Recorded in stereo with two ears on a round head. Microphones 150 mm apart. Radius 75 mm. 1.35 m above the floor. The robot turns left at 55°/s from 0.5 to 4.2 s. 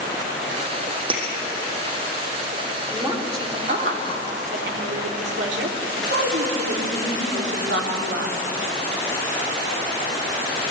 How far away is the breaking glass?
About 4 m.